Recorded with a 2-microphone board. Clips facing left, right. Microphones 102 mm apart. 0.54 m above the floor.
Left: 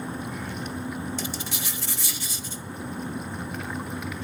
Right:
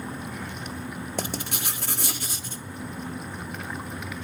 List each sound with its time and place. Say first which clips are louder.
1.2 s writing: right 2 dB; 55° right (ahead or behind), 1.1 m